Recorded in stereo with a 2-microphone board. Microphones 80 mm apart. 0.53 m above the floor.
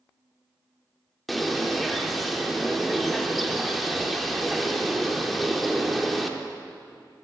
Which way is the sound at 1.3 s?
Centre (ahead or behind).